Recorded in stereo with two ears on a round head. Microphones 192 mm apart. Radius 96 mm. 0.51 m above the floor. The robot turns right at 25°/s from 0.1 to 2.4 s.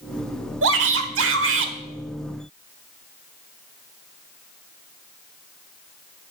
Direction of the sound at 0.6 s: 60° right (ahead or behind).